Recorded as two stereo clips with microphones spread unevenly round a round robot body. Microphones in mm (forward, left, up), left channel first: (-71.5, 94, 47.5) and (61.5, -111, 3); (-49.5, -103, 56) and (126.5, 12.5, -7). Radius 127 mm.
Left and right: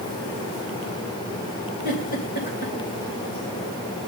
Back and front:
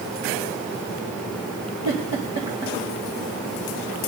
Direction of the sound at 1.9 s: Straight behind.